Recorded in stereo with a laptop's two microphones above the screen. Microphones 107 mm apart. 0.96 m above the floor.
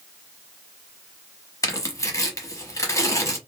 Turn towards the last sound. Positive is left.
turn(degrees=30)  # may be behind; listen again after turning